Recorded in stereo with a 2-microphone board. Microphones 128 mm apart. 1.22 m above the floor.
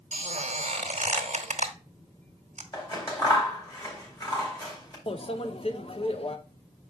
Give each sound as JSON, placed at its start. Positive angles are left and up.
{"t": 0.1, "sound": "a squeak", "side_deg": -60, "distance_m": 1.1}
{"t": 2.7, "sound": "scissors", "side_deg": 30, "distance_m": 2.5}
{"t": 5.1, "sound": "a microwave", "side_deg": 50, "distance_m": 0.6}